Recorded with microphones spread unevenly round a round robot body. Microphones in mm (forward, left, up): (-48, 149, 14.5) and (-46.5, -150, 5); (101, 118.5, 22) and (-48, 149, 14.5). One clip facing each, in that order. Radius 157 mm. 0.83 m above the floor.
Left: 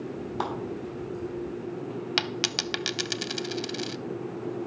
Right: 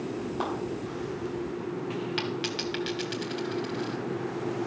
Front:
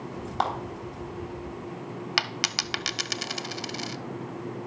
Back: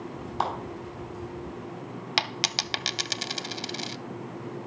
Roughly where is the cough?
No cough in this recording.